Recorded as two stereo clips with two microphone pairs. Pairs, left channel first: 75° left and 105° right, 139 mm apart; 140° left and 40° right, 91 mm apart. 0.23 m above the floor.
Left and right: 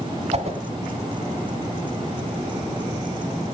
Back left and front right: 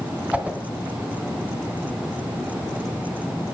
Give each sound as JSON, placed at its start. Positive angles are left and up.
{"t": 0.3, "sound": "a whoosh", "azimuth_deg": -110, "distance_m": 2.0}